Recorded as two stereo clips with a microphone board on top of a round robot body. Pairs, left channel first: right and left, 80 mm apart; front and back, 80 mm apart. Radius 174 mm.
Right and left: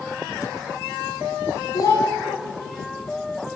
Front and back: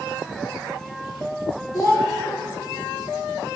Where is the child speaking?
40° right, 1.1 m.